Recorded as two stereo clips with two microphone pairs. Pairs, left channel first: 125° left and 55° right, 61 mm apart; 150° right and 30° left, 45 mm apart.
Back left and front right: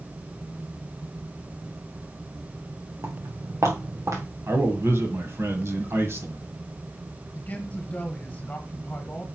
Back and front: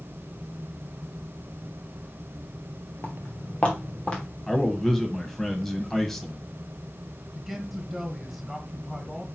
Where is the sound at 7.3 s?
110° left, 1.6 m.